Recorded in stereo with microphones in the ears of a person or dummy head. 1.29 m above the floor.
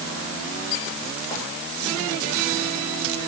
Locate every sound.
Only background noise.